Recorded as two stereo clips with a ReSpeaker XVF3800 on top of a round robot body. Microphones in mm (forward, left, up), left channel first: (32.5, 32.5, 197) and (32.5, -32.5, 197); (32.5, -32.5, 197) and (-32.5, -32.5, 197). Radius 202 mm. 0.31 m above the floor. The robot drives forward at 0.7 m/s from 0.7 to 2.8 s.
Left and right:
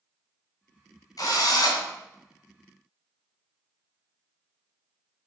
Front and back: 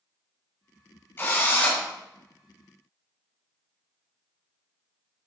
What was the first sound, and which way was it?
A drill, 55° left.